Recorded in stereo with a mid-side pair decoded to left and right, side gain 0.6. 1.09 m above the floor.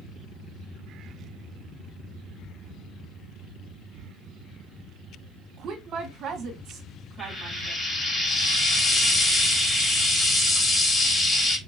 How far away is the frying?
About 1.8 m.